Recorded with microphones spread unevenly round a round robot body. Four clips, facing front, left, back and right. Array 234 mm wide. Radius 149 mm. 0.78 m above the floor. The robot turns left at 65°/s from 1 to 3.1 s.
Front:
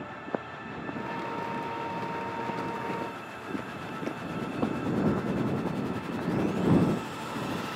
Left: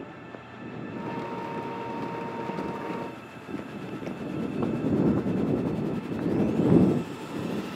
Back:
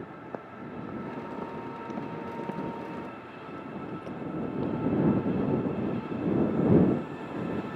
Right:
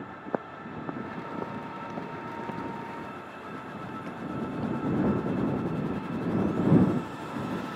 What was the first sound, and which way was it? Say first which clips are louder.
Footsteps: right 6 dB, front 7 dB; 70° right.